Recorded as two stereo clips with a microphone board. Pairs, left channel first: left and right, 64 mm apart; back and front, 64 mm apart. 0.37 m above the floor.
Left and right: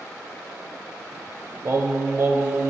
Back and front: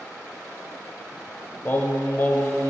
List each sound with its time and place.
1.6 s singing: 130° right, 0.7 m